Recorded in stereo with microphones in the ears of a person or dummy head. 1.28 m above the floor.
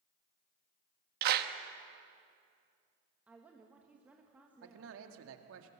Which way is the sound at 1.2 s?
55° right (ahead or behind).